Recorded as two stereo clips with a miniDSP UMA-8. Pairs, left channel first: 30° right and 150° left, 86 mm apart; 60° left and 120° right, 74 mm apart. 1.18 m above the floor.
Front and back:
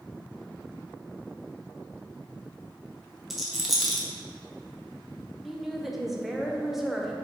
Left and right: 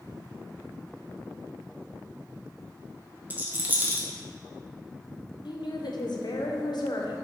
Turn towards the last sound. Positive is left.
turn(degrees=65)